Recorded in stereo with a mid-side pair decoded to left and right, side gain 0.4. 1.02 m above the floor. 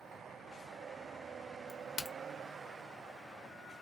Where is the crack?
65° left, 0.9 m.